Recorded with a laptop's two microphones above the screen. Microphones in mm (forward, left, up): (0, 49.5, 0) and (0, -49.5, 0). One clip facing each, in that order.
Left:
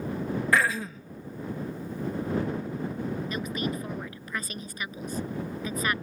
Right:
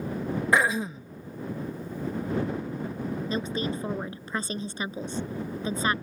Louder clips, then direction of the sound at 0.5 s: Right 2 dB; 20° right (ahead or behind).